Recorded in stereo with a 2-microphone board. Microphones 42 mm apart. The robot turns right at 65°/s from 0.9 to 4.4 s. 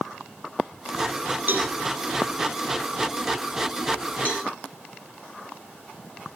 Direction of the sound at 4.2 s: 45° left (ahead or behind).